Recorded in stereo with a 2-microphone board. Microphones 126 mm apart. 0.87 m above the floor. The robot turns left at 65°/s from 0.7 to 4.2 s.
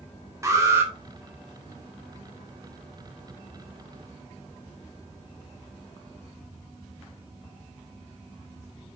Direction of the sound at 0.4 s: 25° right (ahead or behind).